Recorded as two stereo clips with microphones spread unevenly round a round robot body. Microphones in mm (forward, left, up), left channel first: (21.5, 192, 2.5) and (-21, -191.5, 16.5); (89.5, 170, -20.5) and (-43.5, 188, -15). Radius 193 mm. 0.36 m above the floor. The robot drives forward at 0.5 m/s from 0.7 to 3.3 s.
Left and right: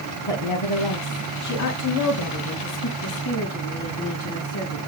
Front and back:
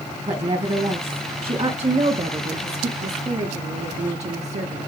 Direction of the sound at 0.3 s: 120° left.